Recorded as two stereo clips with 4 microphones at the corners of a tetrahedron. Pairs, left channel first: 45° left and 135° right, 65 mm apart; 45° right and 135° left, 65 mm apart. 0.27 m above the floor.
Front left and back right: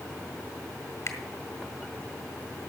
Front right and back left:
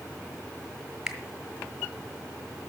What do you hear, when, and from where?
1.1 s a finger snap: 55° left, 2 m